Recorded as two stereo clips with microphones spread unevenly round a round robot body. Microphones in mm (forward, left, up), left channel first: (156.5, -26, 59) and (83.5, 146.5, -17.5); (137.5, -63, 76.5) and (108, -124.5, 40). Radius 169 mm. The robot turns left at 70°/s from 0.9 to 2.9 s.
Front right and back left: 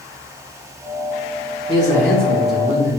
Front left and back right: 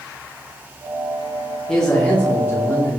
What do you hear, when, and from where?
1.7 s a man speaking: 155° right, 0.8 m; by 3.0 s 120° left, 0.8 m